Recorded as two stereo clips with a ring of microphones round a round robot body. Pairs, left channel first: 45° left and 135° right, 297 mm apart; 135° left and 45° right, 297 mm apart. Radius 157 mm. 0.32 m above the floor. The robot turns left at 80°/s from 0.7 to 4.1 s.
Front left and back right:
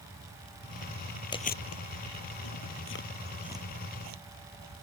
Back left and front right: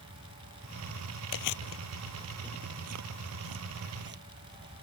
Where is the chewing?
120° left; by 4.8 s 100° right.